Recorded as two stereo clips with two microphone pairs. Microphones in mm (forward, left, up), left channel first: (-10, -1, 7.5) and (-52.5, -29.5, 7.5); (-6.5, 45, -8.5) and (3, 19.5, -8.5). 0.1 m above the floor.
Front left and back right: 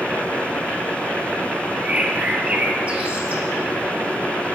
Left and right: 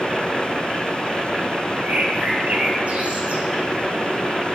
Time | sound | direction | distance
1.8 | a bird | 90° right | 1.9 m